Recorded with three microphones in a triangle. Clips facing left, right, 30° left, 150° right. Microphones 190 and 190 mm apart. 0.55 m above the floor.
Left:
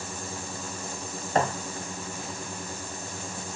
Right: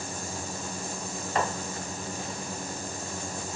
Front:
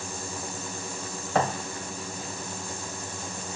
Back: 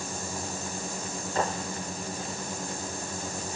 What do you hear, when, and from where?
1.4 s a thud: 50° left, 1.2 m